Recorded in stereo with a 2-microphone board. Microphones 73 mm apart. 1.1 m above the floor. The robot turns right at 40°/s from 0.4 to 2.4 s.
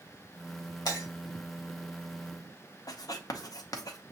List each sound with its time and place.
0.8 s breaking glass: 60° left (ahead or behind), 2 m; by 1.1 s 55° left (ahead or behind), 2 m
2.9 s writing: 60° left (ahead or behind), 0.7 m